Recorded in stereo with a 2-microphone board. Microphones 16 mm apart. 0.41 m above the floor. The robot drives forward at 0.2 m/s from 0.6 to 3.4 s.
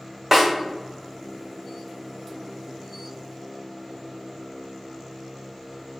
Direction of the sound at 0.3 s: 20° right (ahead or behind).